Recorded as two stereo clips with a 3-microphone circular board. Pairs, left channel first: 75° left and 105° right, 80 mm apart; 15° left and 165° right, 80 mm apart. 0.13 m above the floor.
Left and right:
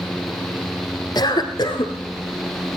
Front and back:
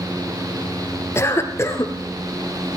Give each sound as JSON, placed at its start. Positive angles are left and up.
{"t": 1.1, "sound": "a cough", "azimuth_deg": 65, "distance_m": 2.5}